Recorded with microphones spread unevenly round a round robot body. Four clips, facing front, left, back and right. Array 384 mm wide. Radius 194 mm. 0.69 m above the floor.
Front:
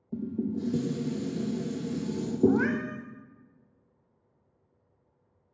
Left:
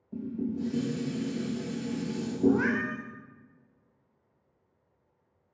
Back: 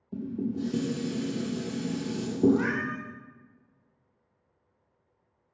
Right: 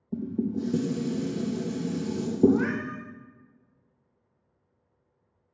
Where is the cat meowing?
20° left, 0.9 m.